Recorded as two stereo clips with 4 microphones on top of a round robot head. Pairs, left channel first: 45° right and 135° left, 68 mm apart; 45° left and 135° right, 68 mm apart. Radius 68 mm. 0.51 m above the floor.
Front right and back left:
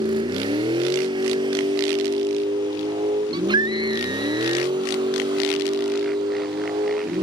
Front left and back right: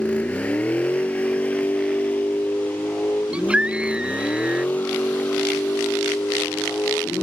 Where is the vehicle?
120° left; by 7.2 s 115° left.